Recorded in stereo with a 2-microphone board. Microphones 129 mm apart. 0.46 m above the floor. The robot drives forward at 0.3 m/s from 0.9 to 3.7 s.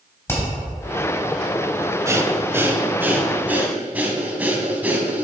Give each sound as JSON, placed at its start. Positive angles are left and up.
{"t": 0.3, "sound": "hammering", "side_deg": 20, "distance_m": 2.5}
{"t": 2.0, "sound": "breathing", "side_deg": -20, "distance_m": 0.7}